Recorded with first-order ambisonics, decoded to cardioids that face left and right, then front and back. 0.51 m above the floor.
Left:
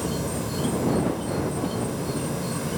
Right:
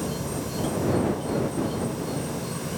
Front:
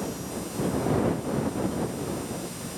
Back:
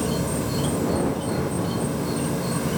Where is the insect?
165° left.